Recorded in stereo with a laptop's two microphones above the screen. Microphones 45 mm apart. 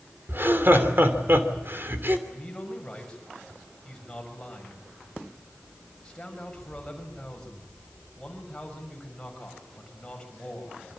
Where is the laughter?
50° right (ahead or behind), 3 m.